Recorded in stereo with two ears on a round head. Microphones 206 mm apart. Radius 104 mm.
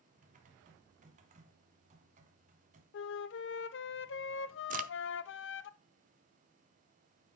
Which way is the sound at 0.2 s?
30° right (ahead or behind).